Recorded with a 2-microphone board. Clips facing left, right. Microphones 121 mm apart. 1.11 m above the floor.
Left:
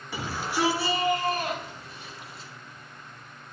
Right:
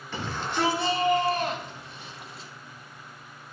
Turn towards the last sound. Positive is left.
turn(degrees=0)  # may be behind; listen again after turning